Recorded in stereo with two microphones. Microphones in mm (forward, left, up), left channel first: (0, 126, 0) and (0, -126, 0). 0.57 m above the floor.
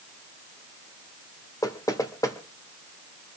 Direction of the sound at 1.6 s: 15° left (ahead or behind).